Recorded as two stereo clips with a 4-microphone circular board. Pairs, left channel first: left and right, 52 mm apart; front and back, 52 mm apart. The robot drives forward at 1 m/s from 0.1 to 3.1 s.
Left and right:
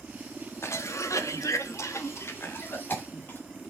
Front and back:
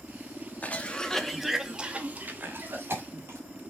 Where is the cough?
60° left, 1.5 m; by 3.4 s 145° left, 2 m.